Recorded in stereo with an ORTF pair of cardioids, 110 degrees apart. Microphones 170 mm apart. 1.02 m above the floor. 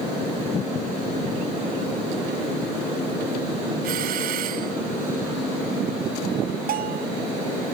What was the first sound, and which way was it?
A doorbell, 60° right.